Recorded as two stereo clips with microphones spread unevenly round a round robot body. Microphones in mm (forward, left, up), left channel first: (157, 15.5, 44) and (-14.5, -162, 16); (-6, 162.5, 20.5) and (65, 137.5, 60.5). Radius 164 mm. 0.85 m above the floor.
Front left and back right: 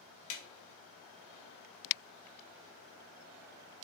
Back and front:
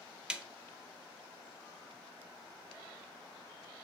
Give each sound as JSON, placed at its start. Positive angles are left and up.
{"t": 0.3, "sound": "a snare drum", "azimuth_deg": 70, "distance_m": 0.8}